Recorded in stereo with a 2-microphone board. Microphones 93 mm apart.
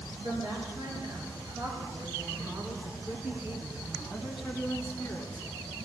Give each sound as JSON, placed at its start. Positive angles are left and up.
{"t": 0.2, "sound": "a woman speaking", "side_deg": -60, "distance_m": 4.0}